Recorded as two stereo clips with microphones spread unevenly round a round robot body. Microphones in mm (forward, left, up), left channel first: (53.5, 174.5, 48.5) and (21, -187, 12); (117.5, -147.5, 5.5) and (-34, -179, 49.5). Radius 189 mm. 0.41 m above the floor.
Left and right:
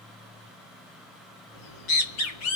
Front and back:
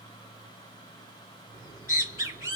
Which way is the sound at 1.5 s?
95° left.